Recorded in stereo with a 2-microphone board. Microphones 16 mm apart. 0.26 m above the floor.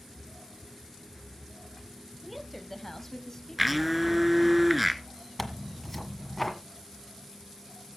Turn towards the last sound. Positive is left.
turn(degrees=5)  # may be behind; listen again after turning